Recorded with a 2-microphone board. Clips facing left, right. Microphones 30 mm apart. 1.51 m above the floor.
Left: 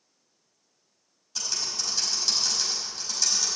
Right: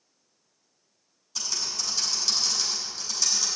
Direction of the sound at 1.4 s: 5° left (ahead or behind).